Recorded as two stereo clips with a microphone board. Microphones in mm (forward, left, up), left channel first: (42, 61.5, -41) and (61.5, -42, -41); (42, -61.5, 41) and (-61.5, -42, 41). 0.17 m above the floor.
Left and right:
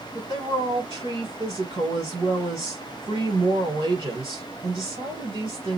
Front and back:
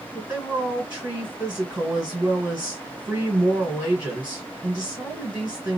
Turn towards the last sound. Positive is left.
turn(degrees=-115)